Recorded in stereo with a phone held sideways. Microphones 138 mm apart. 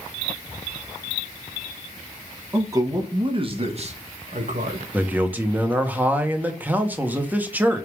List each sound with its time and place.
2.5 s a man speaking: 20° right (ahead or behind), 1.6 m; by 4.8 s 70° right (ahead or behind), 1.6 m
4.9 s a man speaking: 10° right (ahead or behind), 1.3 m